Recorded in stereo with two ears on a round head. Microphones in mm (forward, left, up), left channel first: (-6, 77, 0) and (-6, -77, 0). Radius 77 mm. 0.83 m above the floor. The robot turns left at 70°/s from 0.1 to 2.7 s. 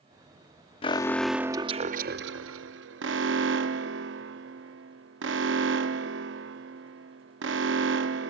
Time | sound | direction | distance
0.8 | an alarm | 30° left | ?